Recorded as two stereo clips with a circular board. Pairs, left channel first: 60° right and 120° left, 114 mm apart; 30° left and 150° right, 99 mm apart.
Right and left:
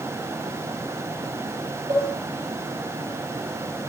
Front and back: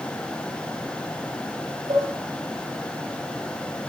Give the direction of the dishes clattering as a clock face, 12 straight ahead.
6 o'clock.